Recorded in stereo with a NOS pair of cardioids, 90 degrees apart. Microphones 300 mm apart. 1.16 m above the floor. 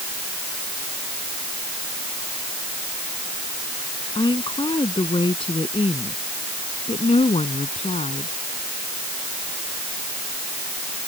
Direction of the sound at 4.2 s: 15° left.